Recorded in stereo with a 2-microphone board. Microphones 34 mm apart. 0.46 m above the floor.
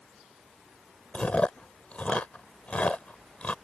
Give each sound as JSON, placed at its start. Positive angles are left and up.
{"t": 1.1, "sound": "chewing", "side_deg": 40}